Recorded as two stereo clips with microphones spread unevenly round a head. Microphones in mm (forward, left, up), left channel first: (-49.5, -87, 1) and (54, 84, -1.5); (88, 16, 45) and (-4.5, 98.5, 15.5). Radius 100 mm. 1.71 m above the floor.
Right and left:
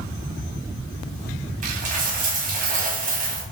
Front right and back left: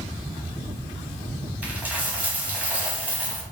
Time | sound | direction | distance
1.6 | a dropped coin | 45° left | 1.3 m